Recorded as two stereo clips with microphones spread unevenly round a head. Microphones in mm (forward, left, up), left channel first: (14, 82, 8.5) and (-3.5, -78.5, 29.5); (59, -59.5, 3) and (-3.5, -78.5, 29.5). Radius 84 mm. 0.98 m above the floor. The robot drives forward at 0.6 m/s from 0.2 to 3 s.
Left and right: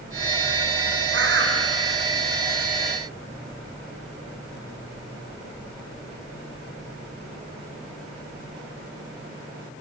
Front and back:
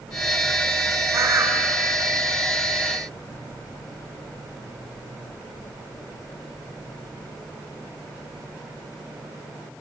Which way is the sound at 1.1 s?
120° right.